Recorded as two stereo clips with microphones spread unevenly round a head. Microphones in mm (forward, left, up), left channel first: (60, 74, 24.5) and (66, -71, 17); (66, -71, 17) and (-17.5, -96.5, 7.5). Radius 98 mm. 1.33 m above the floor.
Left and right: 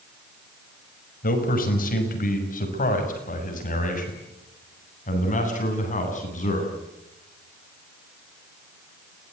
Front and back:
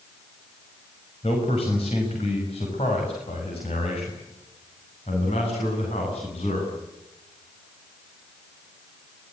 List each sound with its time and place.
1.2 s a man speaking: 70° left, 6.5 m; by 6.7 s 60° left, 10.5 m